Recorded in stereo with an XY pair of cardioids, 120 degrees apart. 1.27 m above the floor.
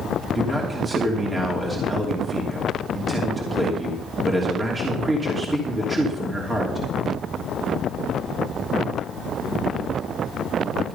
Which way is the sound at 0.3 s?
25° right.